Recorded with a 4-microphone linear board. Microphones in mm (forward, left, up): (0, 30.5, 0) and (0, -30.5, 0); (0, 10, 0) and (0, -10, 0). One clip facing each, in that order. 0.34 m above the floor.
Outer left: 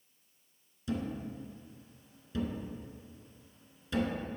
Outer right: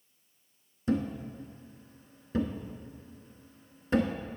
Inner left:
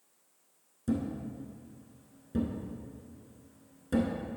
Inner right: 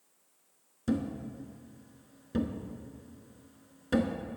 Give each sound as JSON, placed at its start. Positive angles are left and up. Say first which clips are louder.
{"t": 0.9, "sound": "a thud", "louder": "outer right 6 dB, inner right 1 dB", "side_deg": -45, "distance_m": 0.7}